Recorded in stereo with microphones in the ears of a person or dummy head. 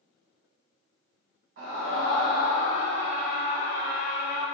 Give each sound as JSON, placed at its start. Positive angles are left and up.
{"t": 1.6, "sound": "a scream", "side_deg": -55, "distance_m": 1.1}